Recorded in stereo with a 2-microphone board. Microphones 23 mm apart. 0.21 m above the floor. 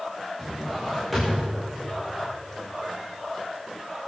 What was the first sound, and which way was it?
A drawer, 10° left (ahead or behind).